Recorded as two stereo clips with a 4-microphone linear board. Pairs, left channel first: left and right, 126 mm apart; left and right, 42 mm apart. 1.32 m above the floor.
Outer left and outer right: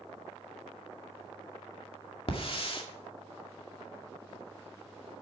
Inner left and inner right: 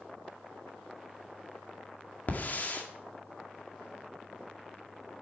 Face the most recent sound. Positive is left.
turn(degrees=50)  # may be behind; listen again after turning